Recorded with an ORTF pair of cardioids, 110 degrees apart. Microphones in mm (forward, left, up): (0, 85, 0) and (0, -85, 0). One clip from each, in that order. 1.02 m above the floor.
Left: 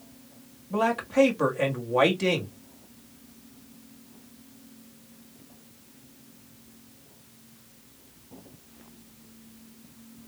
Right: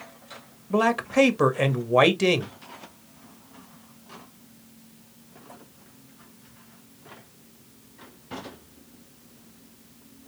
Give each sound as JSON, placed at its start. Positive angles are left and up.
{"t": 0.7, "sound": "a man speaking", "azimuth_deg": -30, "distance_m": 1.3}